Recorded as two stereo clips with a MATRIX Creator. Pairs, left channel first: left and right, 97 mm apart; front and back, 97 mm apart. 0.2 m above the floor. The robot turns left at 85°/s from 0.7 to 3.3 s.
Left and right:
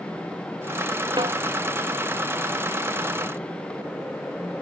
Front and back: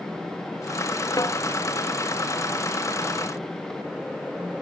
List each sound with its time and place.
1.2 s a snare drum: 50° right; by 1.4 s 70° right